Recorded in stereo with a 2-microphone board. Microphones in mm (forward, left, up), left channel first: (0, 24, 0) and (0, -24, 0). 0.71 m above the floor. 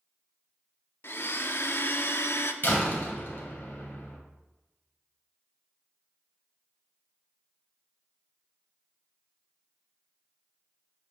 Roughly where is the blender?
Left.